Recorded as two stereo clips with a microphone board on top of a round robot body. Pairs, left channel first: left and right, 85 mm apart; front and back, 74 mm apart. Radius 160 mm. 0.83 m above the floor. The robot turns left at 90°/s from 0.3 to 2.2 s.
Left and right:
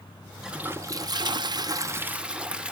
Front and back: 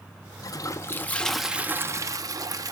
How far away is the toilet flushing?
About 0.7 m.